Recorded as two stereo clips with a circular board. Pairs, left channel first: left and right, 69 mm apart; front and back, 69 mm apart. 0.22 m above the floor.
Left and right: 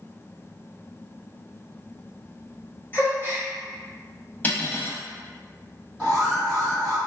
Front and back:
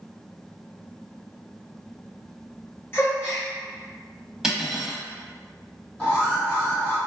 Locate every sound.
2.9 s a gasp: 40° left, 1.2 m
4.4 s cutlery clinking: 105° left, 0.6 m
6.0 s an alarm: 30° left, 2.0 m